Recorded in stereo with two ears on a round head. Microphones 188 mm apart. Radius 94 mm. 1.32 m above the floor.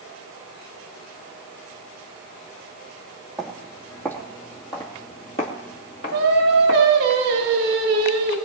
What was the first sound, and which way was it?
Footsteps, centre (ahead or behind).